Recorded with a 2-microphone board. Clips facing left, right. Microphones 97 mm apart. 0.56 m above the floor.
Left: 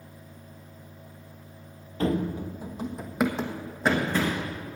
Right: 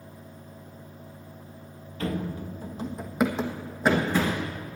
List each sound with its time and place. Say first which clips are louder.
2.0 s running footsteps: left 4 dB; 35° left (ahead or behind), 0.8 m; by 4.5 s 10° right (ahead or behind), 2.5 m